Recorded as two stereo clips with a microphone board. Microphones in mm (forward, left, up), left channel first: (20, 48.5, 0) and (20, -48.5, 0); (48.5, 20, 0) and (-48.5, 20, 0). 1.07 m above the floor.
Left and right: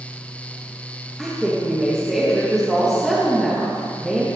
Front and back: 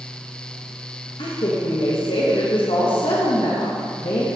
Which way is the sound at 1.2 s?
5° right.